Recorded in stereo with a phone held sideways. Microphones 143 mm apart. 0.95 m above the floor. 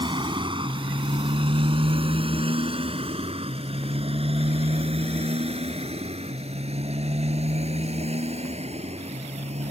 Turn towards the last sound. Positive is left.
turn(degrees=-50)  # may be behind; listen again after turning